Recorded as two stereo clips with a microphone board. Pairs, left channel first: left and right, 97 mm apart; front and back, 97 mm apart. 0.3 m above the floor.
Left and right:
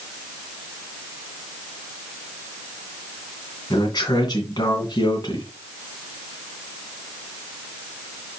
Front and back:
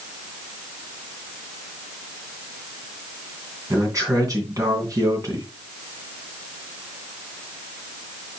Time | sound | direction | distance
3.7 | a man speaking | 130° left | 2.5 m